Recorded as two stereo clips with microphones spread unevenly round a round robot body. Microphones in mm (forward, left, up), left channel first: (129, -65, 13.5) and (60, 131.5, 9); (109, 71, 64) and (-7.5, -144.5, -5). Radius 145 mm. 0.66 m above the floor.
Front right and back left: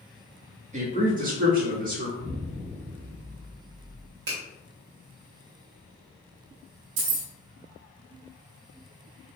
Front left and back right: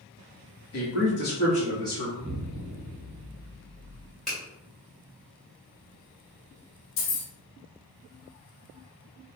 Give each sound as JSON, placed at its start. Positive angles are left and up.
{"t": 0.7, "sound": "a man speaking", "azimuth_deg": 75, "distance_m": 1.4}
{"t": 2.2, "sound": "an explosion", "azimuth_deg": -170, "distance_m": 0.9}
{"t": 4.3, "sound": "a finger snap", "azimuth_deg": 155, "distance_m": 1.8}
{"t": 7.0, "sound": "keys jangling", "azimuth_deg": 110, "distance_m": 0.9}